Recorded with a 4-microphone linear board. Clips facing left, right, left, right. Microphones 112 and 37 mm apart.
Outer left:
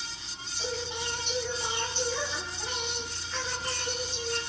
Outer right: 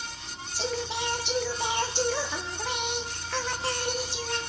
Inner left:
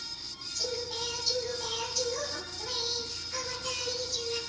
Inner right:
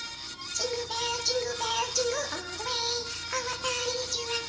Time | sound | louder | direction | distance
0.5 | singing | outer right 4 dB, inner right 4 dB | 80° right | 1.7 m